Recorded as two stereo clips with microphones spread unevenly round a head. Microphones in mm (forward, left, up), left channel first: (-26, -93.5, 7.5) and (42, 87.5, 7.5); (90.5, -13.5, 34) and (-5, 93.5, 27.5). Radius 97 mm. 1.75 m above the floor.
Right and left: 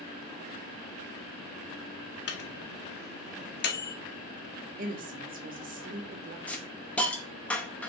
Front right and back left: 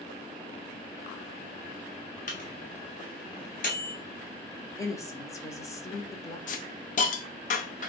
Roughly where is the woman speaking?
Ahead.